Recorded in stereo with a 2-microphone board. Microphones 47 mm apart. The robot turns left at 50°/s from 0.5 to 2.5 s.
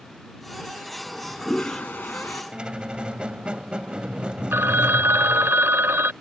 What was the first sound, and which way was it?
A toilet flushing, 175° left.